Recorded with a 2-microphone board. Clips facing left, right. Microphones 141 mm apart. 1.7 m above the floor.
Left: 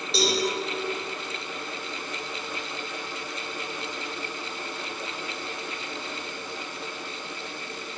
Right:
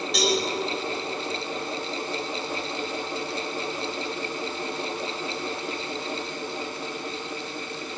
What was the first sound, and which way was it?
A cowbell, 30° left (ahead or behind).